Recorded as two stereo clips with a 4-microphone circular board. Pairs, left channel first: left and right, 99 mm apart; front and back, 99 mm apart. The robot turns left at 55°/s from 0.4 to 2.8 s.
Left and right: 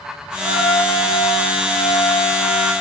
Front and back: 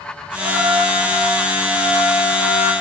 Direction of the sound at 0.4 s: 170° left.